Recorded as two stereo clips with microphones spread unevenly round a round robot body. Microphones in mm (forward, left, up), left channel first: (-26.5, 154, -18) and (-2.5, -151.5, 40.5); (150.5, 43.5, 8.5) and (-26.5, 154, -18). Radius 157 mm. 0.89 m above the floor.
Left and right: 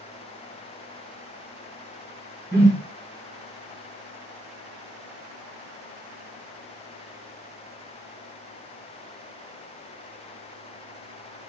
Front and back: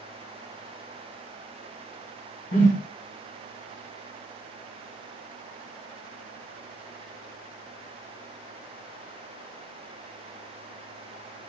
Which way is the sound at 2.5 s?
25° right.